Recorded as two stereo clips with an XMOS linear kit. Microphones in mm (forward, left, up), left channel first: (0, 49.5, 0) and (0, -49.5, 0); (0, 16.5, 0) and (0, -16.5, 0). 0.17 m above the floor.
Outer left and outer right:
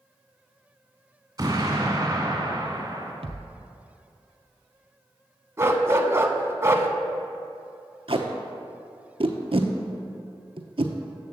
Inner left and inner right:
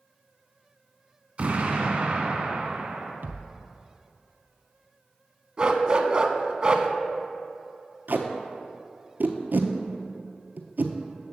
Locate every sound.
1.4 s an explosion: 40° right (ahead or behind), 1.6 m
3.2 s a thud: 85° right, 0.7 m
5.6 s a dog barking: 30° right (ahead or behind), 0.6 m
8.1 s tape being pulled: 65° right (ahead or behind), 0.7 m